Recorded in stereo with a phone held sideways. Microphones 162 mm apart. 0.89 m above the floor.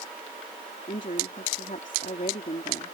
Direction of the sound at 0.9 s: 55° left (ahead or behind).